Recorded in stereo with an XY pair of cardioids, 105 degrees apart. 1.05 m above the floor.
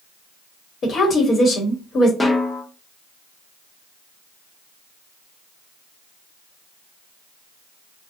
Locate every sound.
0.8 s a woman speaking: 55° left, 1.0 m
2.2 s a snare drum: 20° left, 0.8 m